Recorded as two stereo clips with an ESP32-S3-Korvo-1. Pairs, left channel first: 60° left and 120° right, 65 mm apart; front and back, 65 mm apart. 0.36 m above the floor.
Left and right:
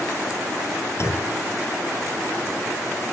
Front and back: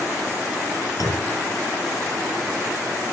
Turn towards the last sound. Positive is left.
turn(degrees=20)